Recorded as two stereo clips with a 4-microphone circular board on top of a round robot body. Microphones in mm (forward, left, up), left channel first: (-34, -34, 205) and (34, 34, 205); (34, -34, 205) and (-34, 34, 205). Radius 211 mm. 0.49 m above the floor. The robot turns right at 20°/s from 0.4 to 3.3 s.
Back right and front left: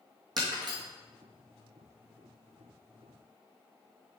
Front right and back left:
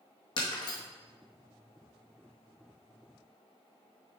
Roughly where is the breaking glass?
Ahead.